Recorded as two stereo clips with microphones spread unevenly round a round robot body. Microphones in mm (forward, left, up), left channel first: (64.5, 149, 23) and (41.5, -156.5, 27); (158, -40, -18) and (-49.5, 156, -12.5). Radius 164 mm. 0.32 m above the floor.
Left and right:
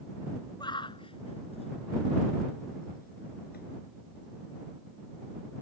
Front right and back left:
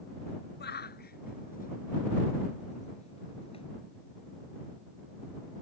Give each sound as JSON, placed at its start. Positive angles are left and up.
{"t": 0.6, "sound": "a shout", "azimuth_deg": 10}